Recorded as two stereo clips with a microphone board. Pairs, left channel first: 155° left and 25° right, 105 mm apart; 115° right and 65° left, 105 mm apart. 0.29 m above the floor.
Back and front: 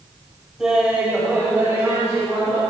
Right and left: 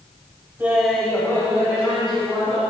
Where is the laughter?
55° left, 1.2 m; by 2.6 s 90° right, 2.5 m.